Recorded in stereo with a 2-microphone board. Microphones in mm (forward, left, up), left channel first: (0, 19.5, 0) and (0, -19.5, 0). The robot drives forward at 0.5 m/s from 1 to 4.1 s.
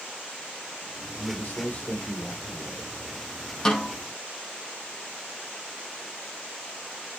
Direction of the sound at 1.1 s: 35° left (ahead or behind).